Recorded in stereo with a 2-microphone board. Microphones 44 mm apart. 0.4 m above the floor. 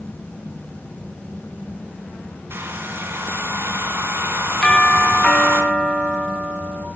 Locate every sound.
2.5 s a hair dryer: 55° right (ahead or behind), 3.5 m
4.6 s a doorbell: 20° left (ahead or behind), 5.5 m